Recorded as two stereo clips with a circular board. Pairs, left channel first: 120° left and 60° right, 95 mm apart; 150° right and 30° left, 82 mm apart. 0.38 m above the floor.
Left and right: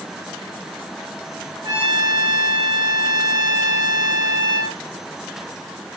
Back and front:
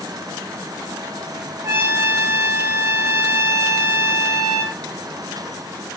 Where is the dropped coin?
No dropped coin in this recording.